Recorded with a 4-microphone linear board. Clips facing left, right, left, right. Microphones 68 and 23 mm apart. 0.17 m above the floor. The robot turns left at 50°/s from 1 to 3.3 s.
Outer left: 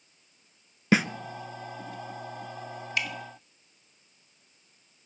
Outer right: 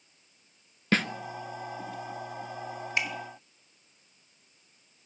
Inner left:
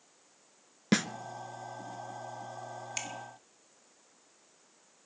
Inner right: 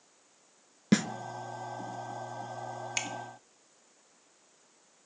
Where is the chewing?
No chewing in this recording.